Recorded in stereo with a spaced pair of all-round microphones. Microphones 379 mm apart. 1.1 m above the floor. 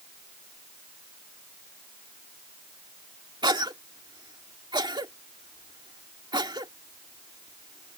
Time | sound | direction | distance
3.4 | a cough | 10° right (ahead or behind) | ?